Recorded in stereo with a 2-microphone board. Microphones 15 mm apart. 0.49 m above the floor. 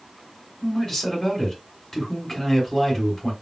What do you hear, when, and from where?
0.6 s a man speaking: 25° left (ahead or behind), 2.5 m